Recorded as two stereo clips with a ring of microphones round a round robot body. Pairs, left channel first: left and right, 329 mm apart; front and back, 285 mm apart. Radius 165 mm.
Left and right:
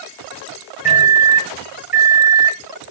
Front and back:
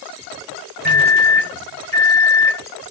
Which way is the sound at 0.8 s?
25° left.